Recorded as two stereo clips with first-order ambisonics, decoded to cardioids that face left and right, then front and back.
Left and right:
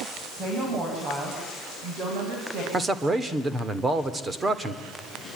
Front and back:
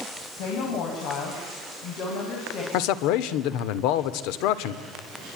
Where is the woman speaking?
25° right, 6 m; by 2.6 s 45° right, 6.5 m.